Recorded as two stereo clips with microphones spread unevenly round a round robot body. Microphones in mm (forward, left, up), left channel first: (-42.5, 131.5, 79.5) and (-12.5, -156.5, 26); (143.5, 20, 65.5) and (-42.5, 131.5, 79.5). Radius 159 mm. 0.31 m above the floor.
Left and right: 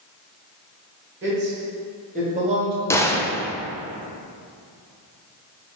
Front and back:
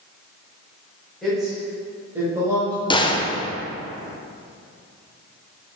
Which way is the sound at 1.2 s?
120° right.